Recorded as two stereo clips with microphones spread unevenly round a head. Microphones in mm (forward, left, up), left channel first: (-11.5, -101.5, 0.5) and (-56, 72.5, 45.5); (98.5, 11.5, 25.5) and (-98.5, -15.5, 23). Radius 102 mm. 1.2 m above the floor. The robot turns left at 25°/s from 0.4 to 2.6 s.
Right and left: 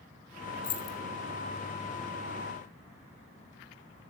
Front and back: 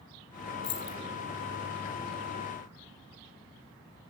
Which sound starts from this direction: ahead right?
Keys jangling, at 0.6 s.